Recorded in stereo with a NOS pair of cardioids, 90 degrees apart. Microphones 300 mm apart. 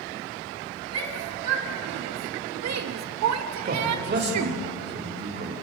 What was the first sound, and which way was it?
A shout, 55° right.